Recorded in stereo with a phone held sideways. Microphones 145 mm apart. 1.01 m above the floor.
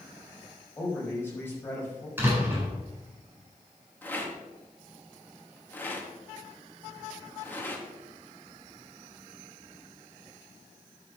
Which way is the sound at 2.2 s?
15° right (ahead or behind).